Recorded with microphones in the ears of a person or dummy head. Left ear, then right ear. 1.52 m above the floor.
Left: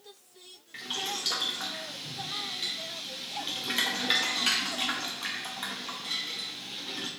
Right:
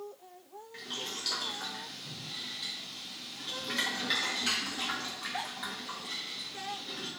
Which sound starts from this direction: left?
Boiling, at 0.7 s.